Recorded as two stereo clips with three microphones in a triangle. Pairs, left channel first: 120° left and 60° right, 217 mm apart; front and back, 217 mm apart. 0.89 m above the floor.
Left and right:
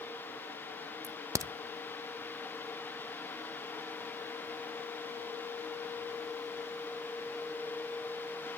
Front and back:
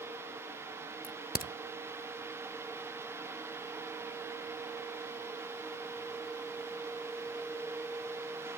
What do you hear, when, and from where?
1.0 s a crack: 10° left, 0.7 m